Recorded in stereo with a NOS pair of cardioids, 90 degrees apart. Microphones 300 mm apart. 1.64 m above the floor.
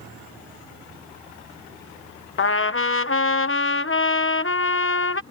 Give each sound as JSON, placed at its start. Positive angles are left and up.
{"t": 2.4, "sound": "a trumpet", "azimuth_deg": 45}